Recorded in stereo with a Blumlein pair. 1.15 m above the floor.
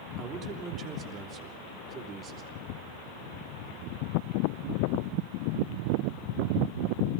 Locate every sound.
0.2 s a man speaking: 25° right, 3 m